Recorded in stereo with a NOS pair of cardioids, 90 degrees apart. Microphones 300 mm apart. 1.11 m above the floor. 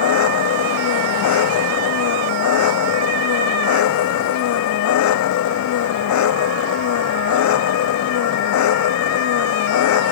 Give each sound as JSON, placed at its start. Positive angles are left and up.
{"t": 0.0, "sound": "an engine running", "azimuth_deg": 70}